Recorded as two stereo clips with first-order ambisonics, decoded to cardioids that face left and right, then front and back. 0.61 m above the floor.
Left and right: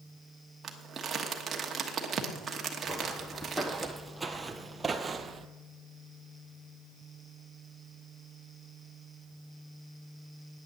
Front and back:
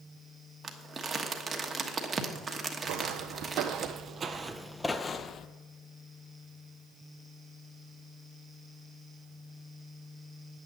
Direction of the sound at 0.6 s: 135° right.